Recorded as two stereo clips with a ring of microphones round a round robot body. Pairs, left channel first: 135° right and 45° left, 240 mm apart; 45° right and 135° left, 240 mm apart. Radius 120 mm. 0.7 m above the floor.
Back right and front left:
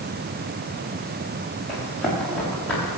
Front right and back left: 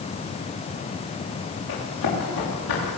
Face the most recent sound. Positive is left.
turn(degrees=-50)